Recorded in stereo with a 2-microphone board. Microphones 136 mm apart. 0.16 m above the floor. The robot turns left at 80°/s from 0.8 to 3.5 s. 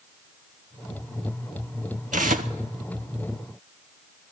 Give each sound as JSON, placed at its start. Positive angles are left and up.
{"t": 2.1, "sound": "tearing paper", "azimuth_deg": -75, "distance_m": 0.6}